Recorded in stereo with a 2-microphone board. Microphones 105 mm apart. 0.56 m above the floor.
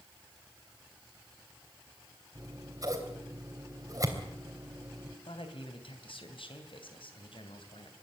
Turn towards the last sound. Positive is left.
turn(degrees=65)  # may be behind; listen again after turning